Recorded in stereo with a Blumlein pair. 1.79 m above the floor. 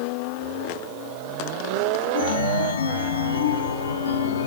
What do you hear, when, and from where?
2.1 s a chime: 65° left, 0.7 m